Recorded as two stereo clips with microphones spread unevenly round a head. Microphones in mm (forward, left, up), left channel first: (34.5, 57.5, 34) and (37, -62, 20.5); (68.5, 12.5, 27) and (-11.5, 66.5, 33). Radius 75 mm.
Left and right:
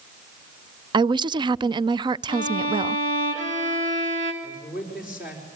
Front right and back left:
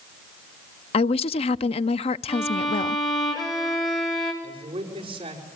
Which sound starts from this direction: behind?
A man speaking, at 4.4 s.